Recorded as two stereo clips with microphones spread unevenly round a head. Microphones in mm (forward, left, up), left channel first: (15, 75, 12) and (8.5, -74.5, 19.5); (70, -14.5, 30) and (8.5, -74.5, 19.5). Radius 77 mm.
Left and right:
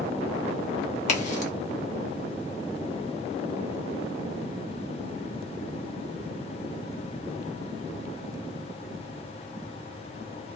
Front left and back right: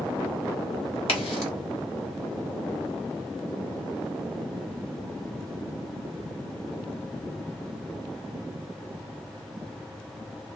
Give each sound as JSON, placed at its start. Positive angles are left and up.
{"t": 1.1, "sound": "a crack", "azimuth_deg": 45, "distance_m": 1.0}